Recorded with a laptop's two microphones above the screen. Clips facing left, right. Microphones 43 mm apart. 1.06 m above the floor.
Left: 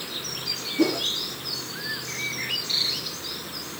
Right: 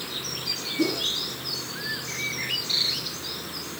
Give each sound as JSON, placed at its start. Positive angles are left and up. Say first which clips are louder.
{"t": 0.8, "sound": "a whoosh", "louder": "left 3 dB", "side_deg": 50, "distance_m": 2.0}